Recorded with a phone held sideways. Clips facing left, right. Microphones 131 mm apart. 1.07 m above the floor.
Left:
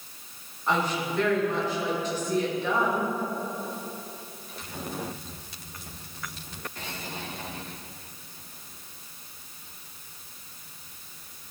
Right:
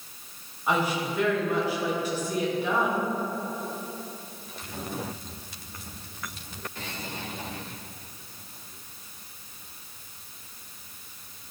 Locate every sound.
0.7 s a woman speaking: 10° right (ahead or behind), 1.9 m